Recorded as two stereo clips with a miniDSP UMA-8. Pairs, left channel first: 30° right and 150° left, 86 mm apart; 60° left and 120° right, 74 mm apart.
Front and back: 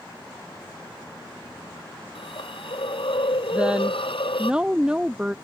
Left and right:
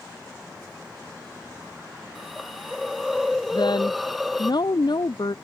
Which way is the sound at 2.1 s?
30° right.